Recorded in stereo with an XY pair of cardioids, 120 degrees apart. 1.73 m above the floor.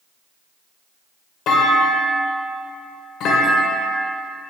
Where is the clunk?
65° left, 1.8 m.